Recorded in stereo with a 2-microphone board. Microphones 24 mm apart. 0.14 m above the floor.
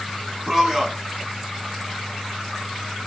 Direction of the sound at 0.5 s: 15° right (ahead or behind).